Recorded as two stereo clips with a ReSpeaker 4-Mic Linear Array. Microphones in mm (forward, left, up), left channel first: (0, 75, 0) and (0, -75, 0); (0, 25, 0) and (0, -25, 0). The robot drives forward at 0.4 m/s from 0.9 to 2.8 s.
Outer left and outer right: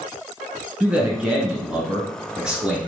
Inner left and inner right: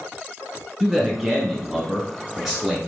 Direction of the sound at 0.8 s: 5° right (ahead or behind).